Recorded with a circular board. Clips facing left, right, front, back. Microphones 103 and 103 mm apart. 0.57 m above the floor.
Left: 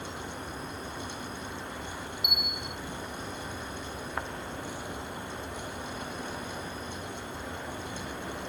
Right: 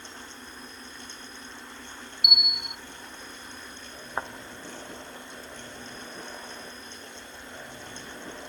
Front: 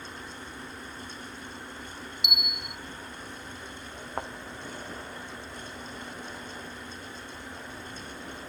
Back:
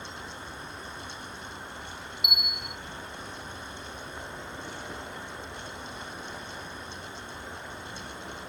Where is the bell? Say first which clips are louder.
Even, even; 90° right.